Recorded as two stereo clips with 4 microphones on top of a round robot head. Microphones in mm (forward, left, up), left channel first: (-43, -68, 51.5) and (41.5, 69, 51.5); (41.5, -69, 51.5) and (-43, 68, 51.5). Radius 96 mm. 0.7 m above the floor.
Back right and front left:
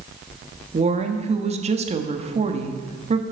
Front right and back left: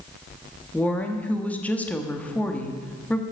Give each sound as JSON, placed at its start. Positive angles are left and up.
{"t": 0.7, "sound": "a woman speaking", "azimuth_deg": 20, "distance_m": 1.5}